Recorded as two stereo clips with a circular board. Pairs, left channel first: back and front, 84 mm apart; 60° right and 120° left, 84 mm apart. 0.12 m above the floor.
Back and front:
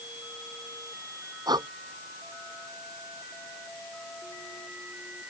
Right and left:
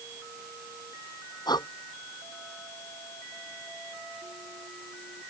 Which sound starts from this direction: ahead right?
Breathing, at 1.5 s.